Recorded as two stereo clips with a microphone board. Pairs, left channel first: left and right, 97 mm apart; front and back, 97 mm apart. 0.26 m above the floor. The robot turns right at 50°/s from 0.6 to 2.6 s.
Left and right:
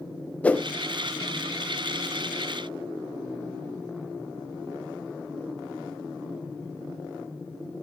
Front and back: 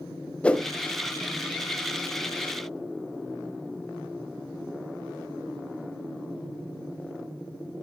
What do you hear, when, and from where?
0.4 s a whoosh: 50° left, 0.7 m; by 0.7 s 55° left, 0.7 m